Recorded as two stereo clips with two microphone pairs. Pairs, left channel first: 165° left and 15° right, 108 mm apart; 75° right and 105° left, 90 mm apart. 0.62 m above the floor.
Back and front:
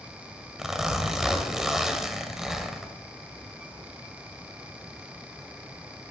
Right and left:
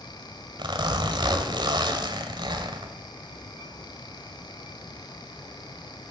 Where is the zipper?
70° left, 1.7 m.